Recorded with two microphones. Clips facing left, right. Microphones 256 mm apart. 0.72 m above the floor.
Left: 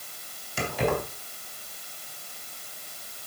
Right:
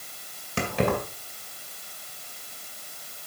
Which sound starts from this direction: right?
Keys jangling, at 0.6 s.